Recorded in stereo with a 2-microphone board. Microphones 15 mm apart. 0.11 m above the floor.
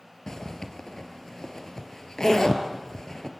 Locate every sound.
0.3 s a zipper: 45° left (ahead or behind), 1.9 m